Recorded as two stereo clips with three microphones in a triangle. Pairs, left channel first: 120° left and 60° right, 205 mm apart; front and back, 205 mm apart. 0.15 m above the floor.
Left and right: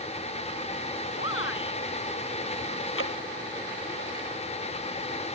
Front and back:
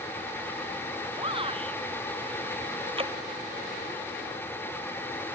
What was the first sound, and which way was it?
A shout, 115° left.